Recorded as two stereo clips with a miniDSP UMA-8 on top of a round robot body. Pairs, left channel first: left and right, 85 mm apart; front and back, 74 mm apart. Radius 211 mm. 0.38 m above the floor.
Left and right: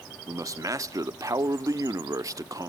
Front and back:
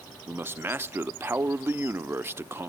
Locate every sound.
0.3 s a man speaking: 130° right